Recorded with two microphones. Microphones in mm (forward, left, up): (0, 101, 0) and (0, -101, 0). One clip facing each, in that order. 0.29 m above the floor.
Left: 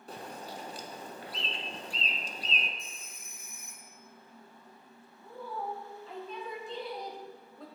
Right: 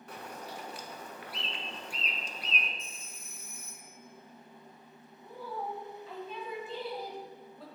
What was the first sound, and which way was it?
A bird, 30° left (ahead or behind).